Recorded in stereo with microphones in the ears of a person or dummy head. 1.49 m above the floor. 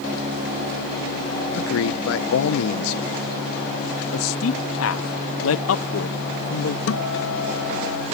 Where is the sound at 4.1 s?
75° left (ahead or behind).